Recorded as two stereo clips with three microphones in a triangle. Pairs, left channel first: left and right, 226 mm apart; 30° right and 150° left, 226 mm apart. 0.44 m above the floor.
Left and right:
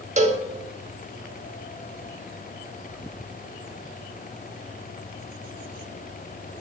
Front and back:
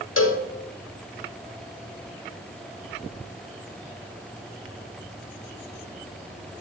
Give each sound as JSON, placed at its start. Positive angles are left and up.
{"t": 0.2, "sound": "a cowbell", "azimuth_deg": -30, "distance_m": 0.6}